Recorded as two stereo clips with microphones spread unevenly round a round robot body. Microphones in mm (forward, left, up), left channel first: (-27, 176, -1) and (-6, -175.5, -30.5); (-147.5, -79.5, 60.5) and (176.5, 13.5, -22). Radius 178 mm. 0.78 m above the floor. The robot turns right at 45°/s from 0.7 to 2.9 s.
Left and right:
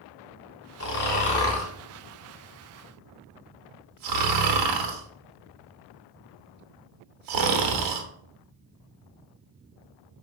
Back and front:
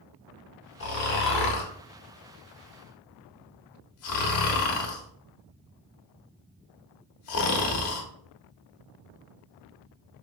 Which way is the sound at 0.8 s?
145° left.